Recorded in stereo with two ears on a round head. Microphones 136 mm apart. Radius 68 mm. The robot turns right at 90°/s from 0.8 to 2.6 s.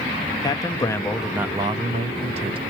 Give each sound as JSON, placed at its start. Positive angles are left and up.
{"t": 0.4, "sound": "a man speaking", "azimuth_deg": 145, "distance_m": 0.6}